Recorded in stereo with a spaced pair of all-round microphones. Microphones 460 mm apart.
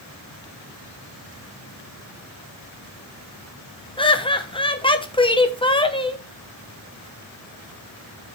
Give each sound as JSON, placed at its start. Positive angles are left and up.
{"t": 4.0, "sound": "laughter", "side_deg": 10, "distance_m": 0.8}